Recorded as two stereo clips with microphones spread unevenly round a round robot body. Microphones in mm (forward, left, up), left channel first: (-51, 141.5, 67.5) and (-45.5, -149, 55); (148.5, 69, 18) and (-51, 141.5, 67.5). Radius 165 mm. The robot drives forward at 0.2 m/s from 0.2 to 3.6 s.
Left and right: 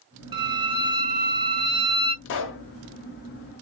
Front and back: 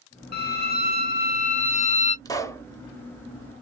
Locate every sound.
0.3 s a violin: 20° right, 1.1 m; by 2.1 s 30° right, 0.8 m
2.2 s a pop: 45° left, 0.8 m; by 2.6 s 50° left, 0.8 m